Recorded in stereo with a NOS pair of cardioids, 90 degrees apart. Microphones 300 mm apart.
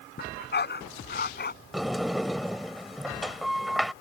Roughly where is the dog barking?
Ahead left.